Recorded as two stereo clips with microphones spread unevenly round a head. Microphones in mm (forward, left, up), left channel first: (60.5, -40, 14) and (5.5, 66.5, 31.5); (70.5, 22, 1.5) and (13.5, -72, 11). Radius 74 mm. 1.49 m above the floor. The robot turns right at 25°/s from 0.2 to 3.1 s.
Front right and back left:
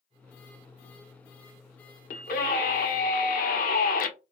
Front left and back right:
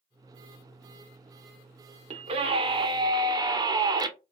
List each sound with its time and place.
2.1 s a scream: 90° right, 1.0 m; by 4.1 s 65° right, 1.0 m